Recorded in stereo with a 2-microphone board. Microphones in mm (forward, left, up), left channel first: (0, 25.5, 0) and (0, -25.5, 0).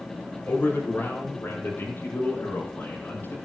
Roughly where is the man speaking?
Left.